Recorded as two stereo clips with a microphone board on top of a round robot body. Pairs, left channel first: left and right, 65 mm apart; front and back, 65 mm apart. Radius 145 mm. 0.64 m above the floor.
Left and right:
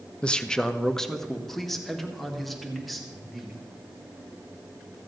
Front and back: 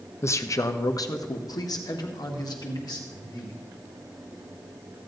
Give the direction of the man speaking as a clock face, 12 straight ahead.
11 o'clock.